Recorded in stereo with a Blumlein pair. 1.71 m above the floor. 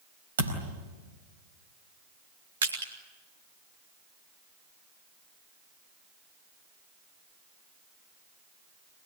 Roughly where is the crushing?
Ahead right.